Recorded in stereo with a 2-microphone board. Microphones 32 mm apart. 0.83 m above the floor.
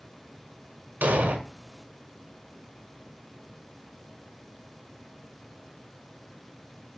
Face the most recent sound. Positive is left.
turn(degrees=-65)  # may be behind; listen again after turning